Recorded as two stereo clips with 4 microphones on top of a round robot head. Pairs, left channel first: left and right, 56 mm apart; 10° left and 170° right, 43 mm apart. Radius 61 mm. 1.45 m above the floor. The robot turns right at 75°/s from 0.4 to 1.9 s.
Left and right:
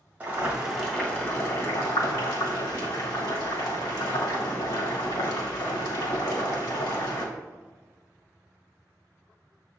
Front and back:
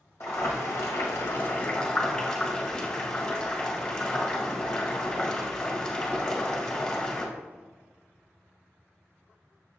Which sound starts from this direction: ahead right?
Boiling, at 0.2 s.